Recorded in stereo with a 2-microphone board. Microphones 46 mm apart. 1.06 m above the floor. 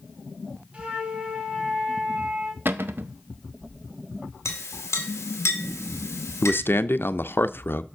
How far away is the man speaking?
About 0.5 m.